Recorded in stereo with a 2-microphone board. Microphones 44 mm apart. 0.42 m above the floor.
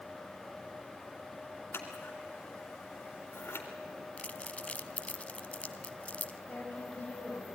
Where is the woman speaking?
40° left (ahead or behind), 3.5 m.